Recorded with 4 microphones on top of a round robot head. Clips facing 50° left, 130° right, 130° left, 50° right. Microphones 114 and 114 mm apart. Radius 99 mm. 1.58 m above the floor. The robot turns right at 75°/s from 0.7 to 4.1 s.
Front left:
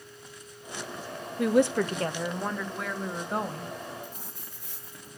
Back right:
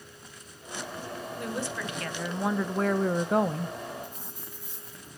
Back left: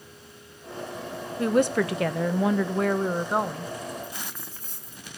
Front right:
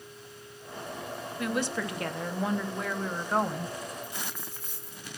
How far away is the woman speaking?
About 0.6 m.